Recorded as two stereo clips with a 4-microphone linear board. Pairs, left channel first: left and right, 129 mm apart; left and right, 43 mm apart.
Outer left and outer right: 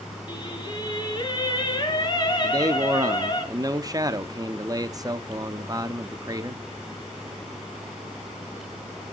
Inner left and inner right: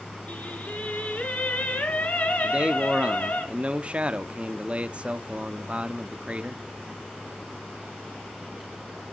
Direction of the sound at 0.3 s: 35° left (ahead or behind).